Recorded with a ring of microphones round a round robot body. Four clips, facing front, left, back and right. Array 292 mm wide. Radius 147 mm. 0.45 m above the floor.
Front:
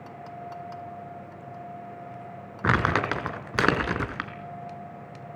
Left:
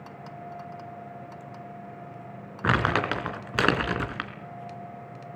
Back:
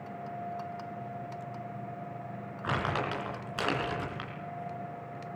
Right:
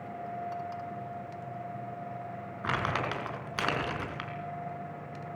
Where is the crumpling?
35° left, 3.5 m.